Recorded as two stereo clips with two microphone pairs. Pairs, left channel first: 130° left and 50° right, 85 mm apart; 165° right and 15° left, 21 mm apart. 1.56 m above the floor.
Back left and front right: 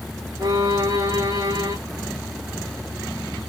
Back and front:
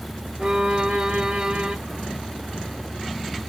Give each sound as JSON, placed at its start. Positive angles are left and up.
{"t": 0.4, "sound": "a violin", "azimuth_deg": -20, "distance_m": 1.6}